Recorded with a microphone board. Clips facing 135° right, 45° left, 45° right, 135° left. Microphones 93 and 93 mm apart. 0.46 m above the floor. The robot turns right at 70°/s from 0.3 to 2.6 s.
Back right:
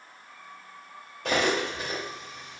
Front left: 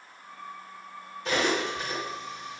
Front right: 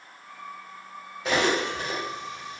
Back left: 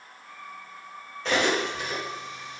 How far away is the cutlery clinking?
About 1.1 m.